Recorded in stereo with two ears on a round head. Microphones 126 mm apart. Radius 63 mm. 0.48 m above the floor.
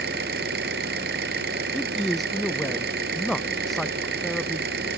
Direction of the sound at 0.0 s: 75° right (ahead or behind).